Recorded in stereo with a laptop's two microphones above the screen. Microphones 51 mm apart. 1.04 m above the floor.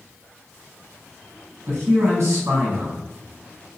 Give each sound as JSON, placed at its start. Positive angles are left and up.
{"t": 1.7, "sound": "a man speaking", "side_deg": -60, "distance_m": 1.3}